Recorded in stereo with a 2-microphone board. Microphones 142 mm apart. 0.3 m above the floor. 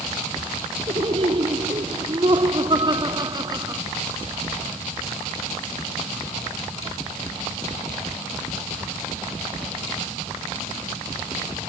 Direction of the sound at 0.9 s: 45° right (ahead or behind).